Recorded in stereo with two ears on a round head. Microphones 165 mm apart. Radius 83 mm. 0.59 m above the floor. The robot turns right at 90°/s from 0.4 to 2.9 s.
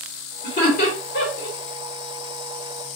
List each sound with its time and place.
0.4 s laughter: 25° left (ahead or behind), 1.8 m; by 1.6 s 45° left (ahead or behind), 1.8 m